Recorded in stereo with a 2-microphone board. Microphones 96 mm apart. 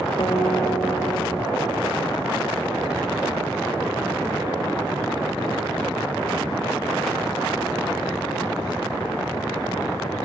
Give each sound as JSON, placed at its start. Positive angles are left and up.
{"t": 0.2, "sound": "a guitar", "side_deg": 65, "distance_m": 7.0}